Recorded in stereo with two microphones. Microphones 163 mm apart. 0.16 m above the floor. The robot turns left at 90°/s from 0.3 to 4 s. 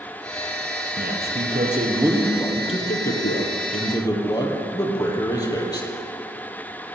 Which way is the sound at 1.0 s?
60° right.